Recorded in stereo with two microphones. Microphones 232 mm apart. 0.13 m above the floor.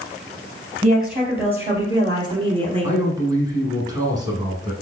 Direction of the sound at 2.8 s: 15° right (ahead or behind).